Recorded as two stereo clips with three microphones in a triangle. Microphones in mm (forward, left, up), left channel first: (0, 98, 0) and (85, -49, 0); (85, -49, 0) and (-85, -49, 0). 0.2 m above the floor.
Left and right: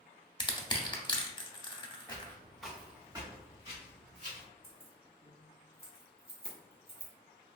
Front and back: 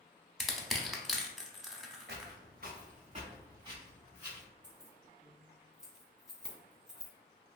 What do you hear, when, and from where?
0.4 s crushing: 90° left, 0.5 m
2.1 s footsteps: 175° right, 0.9 m; by 4.5 s 100° right, 1.7 m
4.6 s keys jangling: 95° right, 0.9 m